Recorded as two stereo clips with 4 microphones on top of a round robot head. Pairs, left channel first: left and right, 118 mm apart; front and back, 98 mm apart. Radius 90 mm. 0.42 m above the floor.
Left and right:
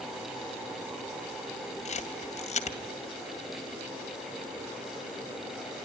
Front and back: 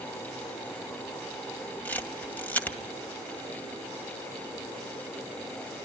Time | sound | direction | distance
1.9 | a camera shutter | 75° left | 2.5 m